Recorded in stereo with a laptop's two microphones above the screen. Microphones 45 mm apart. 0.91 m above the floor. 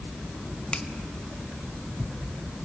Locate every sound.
0.7 s a finger snap: 20° left (ahead or behind), 0.9 m